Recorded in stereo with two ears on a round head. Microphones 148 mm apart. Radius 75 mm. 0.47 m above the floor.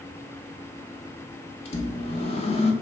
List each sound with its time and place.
1.6 s a microwave: 35° left (ahead or behind), 0.6 m